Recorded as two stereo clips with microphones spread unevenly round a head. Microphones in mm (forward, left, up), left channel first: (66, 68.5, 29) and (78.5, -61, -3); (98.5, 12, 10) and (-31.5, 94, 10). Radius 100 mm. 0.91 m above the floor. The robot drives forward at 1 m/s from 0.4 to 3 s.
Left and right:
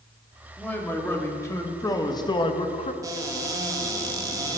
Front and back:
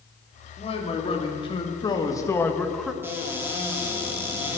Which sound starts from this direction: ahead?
A man speaking, at 0.6 s.